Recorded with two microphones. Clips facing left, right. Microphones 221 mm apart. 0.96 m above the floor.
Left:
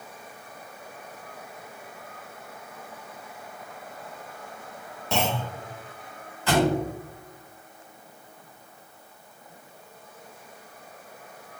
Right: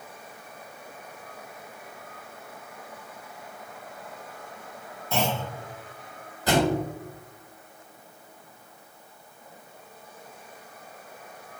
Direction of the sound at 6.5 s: 40° right (ahead or behind).